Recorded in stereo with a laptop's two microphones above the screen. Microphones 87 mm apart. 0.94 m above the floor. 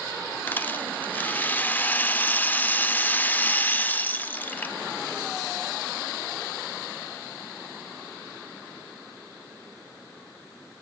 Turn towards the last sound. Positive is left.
turn(degrees=20)  # may be behind; listen again after turning